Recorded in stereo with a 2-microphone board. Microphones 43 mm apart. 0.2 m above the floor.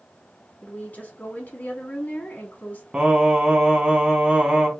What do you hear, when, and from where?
0.6 s a woman speaking: 45° left (ahead or behind), 1.7 m
2.9 s singing: 20° right (ahead or behind), 1.2 m